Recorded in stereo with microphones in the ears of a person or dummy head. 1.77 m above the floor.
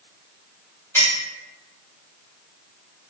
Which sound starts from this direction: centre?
A clink, at 0.9 s.